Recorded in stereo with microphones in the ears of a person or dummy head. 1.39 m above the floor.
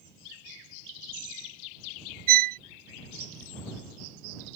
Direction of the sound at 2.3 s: 50° right (ahead or behind).